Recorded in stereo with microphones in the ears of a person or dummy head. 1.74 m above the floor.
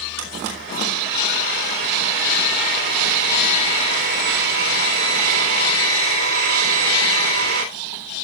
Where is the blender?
70° right (ahead or behind), 3.5 m.